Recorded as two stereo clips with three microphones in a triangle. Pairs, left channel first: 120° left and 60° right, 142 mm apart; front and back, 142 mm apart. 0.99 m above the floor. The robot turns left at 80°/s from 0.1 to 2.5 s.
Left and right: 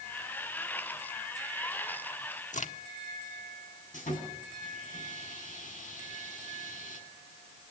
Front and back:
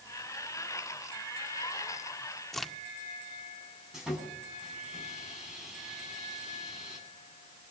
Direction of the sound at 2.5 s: 90° left.